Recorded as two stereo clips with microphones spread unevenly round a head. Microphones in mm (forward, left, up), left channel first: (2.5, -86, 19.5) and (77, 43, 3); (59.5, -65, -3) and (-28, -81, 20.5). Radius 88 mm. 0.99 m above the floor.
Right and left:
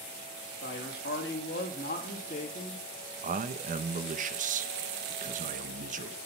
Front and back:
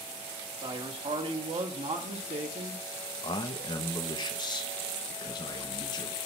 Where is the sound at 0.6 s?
145° right, 2.5 m; by 2.8 s straight behind, 1.9 m.